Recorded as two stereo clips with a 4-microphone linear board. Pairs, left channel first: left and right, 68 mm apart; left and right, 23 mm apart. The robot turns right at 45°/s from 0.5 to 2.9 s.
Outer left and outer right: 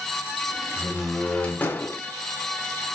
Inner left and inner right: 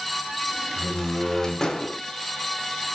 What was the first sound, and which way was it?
A door slam, 15° right.